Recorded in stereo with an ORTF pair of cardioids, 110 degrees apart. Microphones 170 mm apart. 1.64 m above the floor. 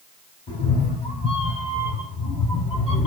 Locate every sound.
0.5 s a cat meowing: 35° left, 5 m; by 3.1 s 40° left, 4 m